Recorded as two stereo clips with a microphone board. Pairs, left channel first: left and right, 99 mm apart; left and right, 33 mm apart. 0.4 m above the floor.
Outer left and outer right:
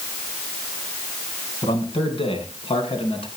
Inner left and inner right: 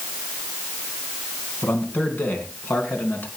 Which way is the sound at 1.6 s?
60° left (ahead or behind).